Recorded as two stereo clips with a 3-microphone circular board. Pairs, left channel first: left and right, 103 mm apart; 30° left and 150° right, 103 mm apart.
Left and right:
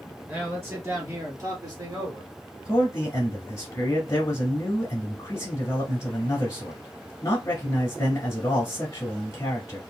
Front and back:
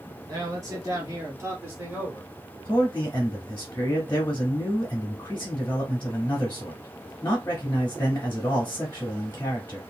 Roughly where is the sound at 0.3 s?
Behind right.